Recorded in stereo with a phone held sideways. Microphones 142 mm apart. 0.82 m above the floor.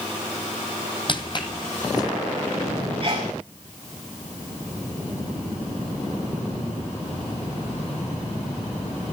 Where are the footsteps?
40° left (ahead or behind), 1.2 m; by 2.1 s 25° left (ahead or behind), 1.9 m.